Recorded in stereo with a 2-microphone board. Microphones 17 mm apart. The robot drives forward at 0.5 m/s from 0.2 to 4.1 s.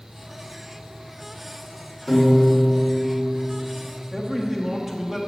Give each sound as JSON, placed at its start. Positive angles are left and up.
{"t": 2.1, "sound": "a piano", "side_deg": 5, "distance_m": 2.5}
{"t": 4.1, "sound": "a man speaking", "side_deg": -15, "distance_m": 0.9}